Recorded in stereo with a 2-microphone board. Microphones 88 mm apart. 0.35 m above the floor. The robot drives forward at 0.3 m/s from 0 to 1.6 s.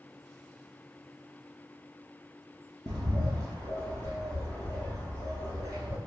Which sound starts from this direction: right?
A bird, at 2.9 s.